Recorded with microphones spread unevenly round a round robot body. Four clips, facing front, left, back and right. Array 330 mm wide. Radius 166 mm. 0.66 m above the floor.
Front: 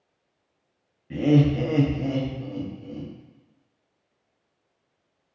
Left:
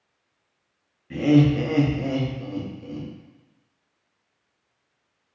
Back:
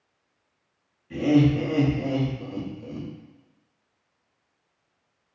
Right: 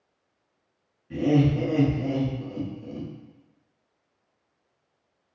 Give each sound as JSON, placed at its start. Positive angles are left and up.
{"t": 1.1, "sound": "laughter", "azimuth_deg": 15, "distance_m": 1.1}